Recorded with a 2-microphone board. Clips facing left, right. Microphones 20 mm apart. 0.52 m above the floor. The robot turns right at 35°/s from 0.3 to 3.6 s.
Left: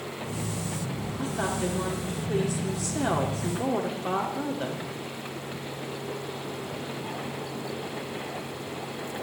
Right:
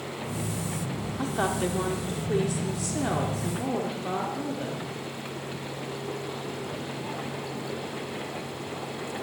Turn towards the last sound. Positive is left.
turn(degrees=35)